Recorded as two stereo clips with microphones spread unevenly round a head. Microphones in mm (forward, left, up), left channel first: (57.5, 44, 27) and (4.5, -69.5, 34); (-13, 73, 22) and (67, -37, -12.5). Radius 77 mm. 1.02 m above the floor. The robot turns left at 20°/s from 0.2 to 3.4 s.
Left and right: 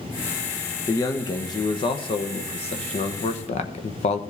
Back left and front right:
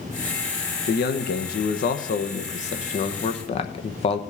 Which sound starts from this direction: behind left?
A man speaking, at 0.9 s.